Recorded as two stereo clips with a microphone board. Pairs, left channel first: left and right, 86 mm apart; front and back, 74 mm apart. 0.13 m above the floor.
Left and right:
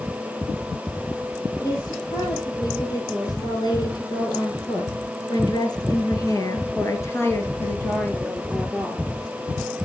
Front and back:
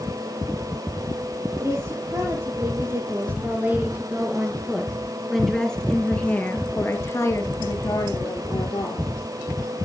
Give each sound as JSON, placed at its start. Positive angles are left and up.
{"t": 1.6, "sound": "a woman speaking", "azimuth_deg": 130, "distance_m": 4.5}